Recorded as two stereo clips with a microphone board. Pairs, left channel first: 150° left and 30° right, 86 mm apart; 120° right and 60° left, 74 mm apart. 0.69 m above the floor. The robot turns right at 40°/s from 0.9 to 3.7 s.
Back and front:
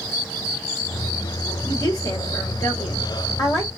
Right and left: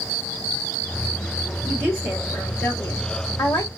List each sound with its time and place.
1.6 s a woman speaking: 115° left, 2 m; by 3.7 s 165° right, 2 m